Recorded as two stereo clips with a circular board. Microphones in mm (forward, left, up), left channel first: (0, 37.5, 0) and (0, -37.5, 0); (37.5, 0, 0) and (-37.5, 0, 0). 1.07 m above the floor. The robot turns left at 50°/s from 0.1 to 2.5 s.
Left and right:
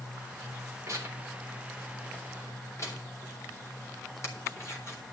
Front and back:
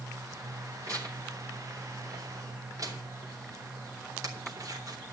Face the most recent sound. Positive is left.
turn(degrees=140)